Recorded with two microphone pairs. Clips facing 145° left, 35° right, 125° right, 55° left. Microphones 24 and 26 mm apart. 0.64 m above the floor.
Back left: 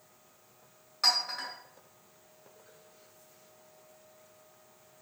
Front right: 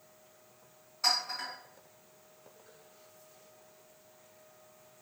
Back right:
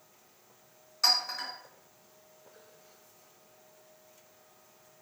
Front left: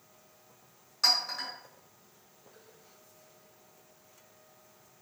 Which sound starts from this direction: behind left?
A clink, at 1.0 s.